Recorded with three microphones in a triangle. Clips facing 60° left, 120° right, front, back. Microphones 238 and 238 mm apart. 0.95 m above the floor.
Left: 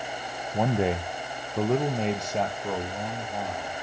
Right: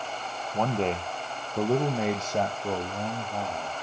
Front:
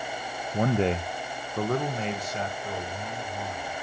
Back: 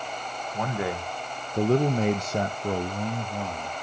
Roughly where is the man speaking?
Ahead.